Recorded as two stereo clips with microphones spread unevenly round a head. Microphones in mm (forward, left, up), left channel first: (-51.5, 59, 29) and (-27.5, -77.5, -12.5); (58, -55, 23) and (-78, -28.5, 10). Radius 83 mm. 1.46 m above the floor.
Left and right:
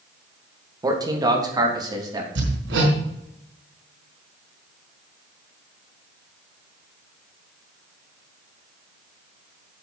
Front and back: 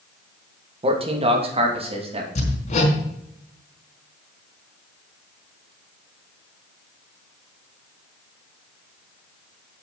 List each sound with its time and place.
0.8 s a man speaking: 145° right, 2.5 m
2.4 s hammering: 45° right, 4 m